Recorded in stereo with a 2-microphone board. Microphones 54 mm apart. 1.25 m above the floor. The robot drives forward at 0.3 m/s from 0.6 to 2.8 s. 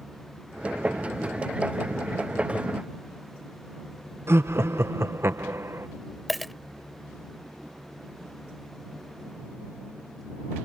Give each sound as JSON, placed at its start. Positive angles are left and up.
{"t": 4.3, "sound": "laughter", "side_deg": -50}
{"t": 6.3, "sound": "a dropped coin", "side_deg": 5}